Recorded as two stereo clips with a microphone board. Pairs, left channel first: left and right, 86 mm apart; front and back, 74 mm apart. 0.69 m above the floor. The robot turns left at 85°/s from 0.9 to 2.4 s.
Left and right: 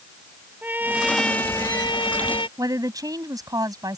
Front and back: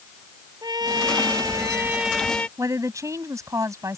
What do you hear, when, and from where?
0.6 s a trumpet: 160° right; by 2.5 s 75° left
2.6 s a woman speaking: 135° right